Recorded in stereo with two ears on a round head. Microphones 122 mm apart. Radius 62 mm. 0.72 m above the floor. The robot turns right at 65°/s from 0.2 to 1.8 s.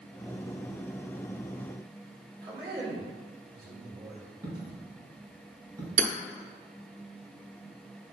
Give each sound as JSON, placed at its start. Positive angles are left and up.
{"t": 2.4, "sound": "a man speaking", "side_deg": -35, "distance_m": 3.0}
{"t": 4.4, "sound": "a dropped coin", "side_deg": -25, "distance_m": 2.5}
{"t": 6.0, "sound": "hammering", "side_deg": -55, "distance_m": 0.8}